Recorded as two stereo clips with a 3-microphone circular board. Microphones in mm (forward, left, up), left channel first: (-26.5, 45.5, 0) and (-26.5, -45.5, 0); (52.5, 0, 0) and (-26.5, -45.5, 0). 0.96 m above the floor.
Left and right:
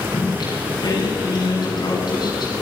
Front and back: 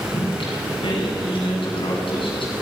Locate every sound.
0.1 s singing: 50° left, 6.5 m